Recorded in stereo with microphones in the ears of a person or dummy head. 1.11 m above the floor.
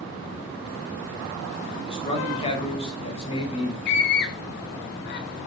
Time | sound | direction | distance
1.8 | a man speaking | 25° left (ahead or behind) | 5 m
3.9 | a scream | 55° left (ahead or behind) | 1.8 m